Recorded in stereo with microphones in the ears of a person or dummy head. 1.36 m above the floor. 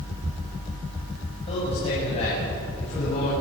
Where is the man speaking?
30° left (ahead or behind), 7 m; by 3.3 s 35° left (ahead or behind), 9 m.